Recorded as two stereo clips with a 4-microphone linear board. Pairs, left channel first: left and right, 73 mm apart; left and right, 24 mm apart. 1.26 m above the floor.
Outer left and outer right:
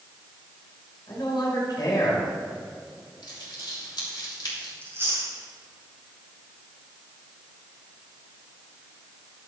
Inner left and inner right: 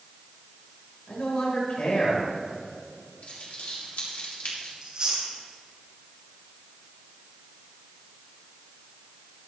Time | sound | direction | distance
1.1 | a man speaking | 65° left (ahead or behind) | 4.5 m
3.2 | crumpling | 70° left (ahead or behind) | 3 m
4.8 | chewing | 35° right (ahead or behind) | 4.5 m